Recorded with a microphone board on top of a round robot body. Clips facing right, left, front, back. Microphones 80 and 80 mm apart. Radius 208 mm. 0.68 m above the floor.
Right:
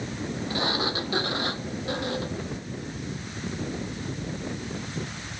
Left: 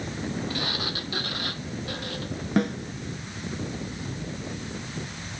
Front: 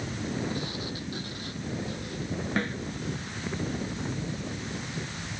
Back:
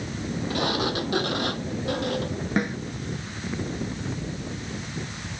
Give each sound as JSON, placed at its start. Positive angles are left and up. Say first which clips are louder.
{"t": 0.5, "sound": "a sliding door", "louder": "right 4 dB, back 9 dB", "azimuth_deg": -155}
{"t": 2.6, "sound": "a snare drum", "louder": "left 13 dB, back 5 dB", "azimuth_deg": 105}